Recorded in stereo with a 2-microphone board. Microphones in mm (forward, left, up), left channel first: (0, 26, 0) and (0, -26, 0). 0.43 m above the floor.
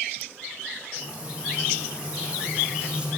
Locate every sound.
1.0 s frying: 20° right (ahead or behind), 5.5 m